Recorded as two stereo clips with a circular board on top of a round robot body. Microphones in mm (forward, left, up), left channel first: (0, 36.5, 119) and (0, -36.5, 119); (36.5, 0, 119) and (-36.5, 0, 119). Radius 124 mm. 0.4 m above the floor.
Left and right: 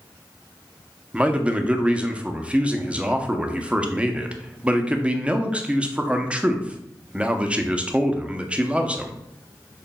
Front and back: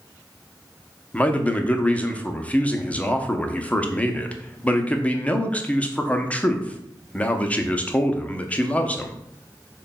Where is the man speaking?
40° right, 0.8 m.